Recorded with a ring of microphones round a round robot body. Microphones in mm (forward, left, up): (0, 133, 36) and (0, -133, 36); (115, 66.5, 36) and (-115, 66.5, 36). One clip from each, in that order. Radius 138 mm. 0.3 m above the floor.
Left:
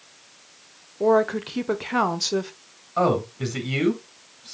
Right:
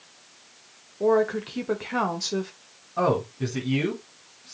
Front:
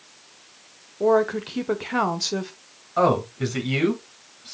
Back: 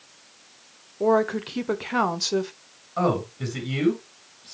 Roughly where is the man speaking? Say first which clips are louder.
Left 2 dB, front 4 dB; left.